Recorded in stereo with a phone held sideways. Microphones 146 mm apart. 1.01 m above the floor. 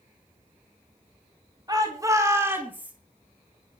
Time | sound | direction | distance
1.7 | a shout | 25° right (ahead or behind) | 2.5 m